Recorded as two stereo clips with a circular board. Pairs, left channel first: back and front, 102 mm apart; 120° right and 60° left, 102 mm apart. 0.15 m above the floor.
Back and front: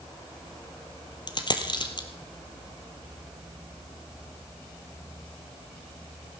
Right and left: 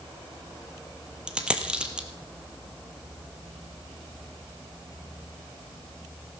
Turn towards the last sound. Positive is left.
turn(degrees=140)